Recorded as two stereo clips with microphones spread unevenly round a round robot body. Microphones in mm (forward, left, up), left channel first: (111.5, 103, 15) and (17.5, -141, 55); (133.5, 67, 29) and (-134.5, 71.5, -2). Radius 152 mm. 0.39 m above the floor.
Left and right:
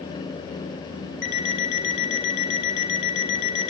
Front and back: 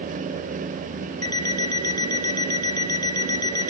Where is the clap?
No clap in this recording.